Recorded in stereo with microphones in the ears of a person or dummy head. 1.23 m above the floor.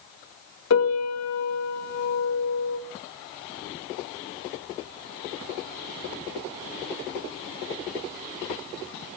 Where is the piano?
65° left (ahead or behind), 1.4 m.